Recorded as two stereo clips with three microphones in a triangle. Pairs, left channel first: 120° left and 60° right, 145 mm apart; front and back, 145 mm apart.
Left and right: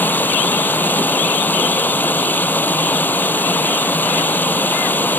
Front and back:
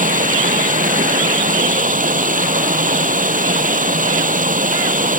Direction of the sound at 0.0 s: 165° right.